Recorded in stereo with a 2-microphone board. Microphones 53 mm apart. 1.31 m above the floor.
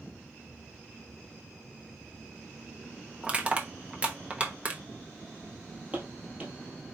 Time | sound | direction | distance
3.2 | crushing | 20° right (ahead or behind) | 0.8 m
5.9 | footsteps | 25° right (ahead or behind) | 1.7 m